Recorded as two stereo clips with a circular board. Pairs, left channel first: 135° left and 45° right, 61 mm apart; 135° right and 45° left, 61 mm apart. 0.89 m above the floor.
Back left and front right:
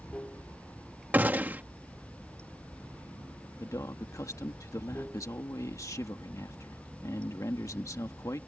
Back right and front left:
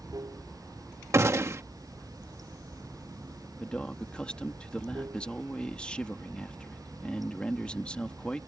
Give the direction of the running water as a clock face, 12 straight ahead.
10 o'clock.